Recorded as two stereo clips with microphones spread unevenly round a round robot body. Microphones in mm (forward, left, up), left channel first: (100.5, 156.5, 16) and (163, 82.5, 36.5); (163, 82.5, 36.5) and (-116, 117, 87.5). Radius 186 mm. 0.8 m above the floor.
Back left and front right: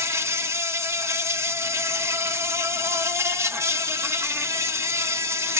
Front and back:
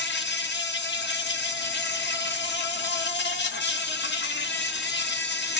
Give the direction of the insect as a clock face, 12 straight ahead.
11 o'clock.